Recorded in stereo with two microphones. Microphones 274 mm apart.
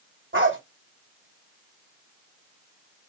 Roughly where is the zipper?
I don't hear a zipper.